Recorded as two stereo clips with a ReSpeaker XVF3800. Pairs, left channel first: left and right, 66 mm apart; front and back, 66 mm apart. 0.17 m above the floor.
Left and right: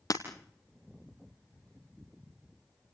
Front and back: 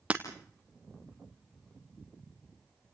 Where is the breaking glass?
110° left, 3 m.